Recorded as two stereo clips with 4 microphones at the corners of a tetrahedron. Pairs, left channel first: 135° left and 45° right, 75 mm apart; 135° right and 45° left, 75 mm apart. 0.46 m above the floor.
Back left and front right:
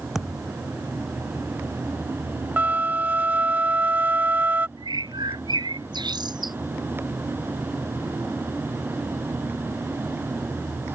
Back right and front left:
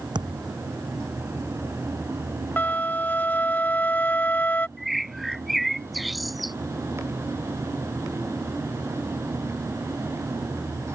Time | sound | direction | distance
0.1 | a thud | 40° left | ?
2.6 | a flute | 90° right | ?
4.8 | a bird | 45° right | ?